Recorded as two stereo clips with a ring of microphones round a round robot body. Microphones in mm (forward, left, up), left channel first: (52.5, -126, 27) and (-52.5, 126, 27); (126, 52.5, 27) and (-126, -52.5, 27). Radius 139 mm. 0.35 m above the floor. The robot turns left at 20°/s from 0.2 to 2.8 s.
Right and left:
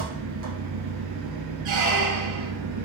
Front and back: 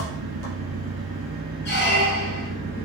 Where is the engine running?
155° left, 1.9 m; by 2.9 s 105° left, 1.9 m.